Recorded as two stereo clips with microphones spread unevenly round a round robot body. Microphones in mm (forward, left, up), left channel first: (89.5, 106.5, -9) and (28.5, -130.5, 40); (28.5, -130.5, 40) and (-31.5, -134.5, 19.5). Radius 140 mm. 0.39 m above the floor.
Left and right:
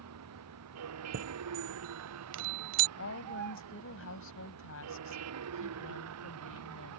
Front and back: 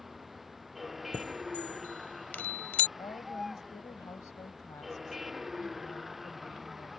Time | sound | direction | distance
0.0 | a vehicle | 90° right | ?
1.1 | a chime | 65° right | ?
3.0 | a woman speaking | 60° left | ?